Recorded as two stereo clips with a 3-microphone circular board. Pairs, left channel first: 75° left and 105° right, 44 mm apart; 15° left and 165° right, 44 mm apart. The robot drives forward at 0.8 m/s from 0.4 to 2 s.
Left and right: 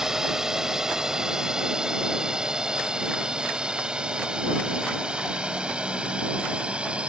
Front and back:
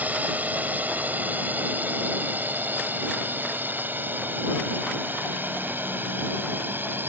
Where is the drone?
175° right; by 7.1 s 165° right.